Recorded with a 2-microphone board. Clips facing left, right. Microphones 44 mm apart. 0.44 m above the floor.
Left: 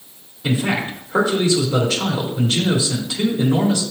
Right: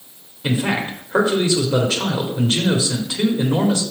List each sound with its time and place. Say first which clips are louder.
0.4 s a man speaking: even; 20° right (ahead or behind), 2.0 m